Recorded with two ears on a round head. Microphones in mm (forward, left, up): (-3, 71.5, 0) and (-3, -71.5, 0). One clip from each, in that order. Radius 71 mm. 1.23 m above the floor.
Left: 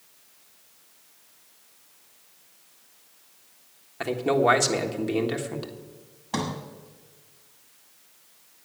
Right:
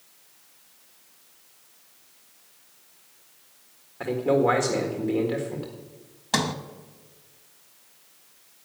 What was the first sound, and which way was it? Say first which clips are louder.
A man speaking: even; 85° left.